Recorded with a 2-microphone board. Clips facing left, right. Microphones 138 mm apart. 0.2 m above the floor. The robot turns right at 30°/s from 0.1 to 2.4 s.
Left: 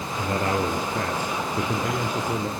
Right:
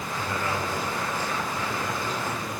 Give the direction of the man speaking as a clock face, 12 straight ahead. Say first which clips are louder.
Left 6 dB; 11 o'clock.